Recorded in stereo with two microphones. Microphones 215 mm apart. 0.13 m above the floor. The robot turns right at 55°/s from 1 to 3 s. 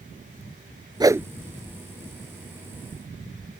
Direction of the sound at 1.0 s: 20° right (ahead or behind).